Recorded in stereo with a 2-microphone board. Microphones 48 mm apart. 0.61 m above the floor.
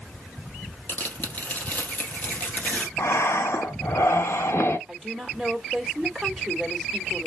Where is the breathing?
65° left (ahead or behind), 1.0 m.